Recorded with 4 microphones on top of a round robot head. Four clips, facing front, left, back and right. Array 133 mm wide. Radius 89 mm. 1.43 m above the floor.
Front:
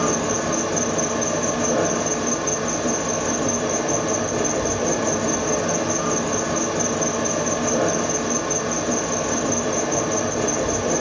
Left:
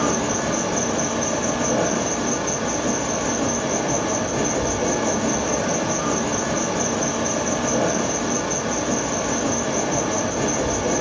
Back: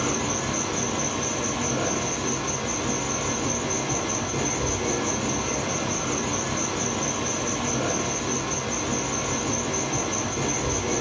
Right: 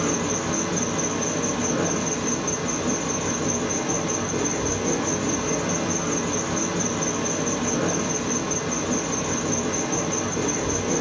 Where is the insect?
40° left, 2.0 m.